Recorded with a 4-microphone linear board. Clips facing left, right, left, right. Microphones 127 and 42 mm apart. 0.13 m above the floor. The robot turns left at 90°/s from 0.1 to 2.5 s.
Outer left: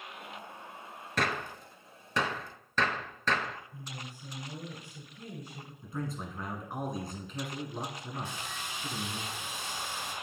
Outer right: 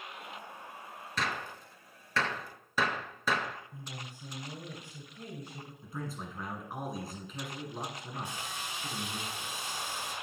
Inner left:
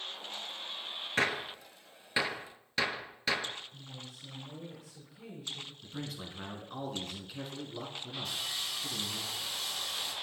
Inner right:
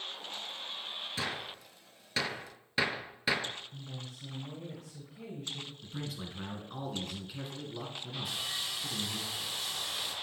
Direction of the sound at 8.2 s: 15° right (ahead or behind).